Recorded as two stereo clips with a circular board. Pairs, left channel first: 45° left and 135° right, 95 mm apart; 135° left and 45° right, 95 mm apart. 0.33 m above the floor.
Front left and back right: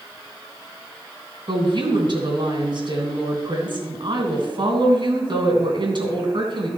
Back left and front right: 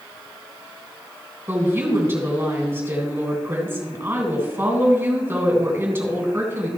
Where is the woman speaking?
110° right, 3 m.